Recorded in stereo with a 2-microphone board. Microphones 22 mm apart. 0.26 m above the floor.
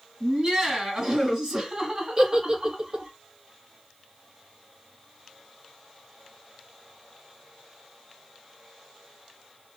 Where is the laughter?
35° right (ahead or behind), 1.8 m.